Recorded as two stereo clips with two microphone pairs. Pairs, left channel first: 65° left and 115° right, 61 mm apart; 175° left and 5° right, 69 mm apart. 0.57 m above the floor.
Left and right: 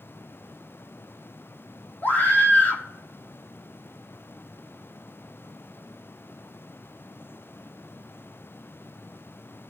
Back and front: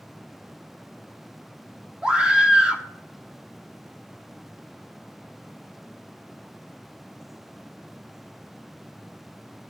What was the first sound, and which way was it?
A scream, 60° left.